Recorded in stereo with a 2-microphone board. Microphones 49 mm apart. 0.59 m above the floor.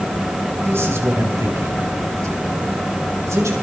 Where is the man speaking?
55° right (ahead or behind), 3 m; by 3.5 s 75° right (ahead or behind), 4 m.